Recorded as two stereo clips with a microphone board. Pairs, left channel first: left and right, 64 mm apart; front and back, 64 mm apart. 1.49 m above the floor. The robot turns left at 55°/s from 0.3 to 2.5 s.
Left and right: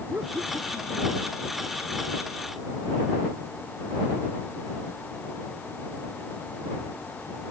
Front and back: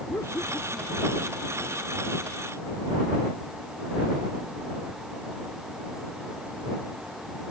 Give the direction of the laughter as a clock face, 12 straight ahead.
1 o'clock.